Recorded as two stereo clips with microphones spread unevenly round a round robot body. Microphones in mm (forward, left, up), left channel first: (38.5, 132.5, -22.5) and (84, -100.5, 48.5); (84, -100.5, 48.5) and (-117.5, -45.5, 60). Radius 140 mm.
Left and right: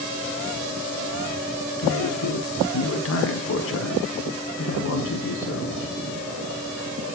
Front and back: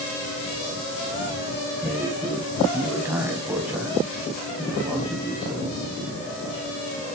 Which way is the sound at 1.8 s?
80° left.